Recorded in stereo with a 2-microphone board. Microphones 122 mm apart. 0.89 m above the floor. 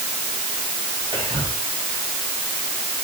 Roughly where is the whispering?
Right.